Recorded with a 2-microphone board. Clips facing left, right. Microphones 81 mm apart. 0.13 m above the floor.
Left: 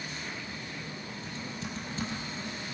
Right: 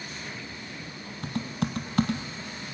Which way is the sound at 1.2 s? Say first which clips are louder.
Right 11 dB; 70° right (ahead or behind).